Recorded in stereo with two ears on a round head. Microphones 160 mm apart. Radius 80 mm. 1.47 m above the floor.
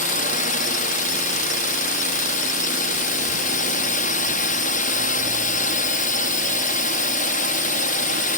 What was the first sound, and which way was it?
A drone, 45° left (ahead or behind).